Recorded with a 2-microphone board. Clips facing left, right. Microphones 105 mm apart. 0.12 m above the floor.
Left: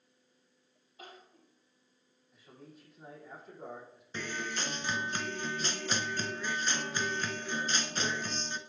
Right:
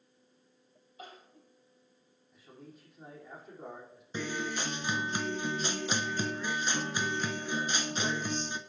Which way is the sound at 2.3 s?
Centre (ahead or behind).